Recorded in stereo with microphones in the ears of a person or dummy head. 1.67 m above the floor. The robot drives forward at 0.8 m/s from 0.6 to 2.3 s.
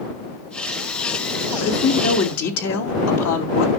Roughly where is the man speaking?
Left.